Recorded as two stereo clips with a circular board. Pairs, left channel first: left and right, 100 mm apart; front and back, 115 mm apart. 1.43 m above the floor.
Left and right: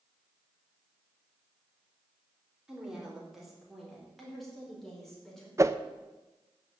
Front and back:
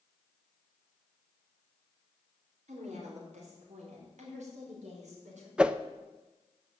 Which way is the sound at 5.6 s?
105° right.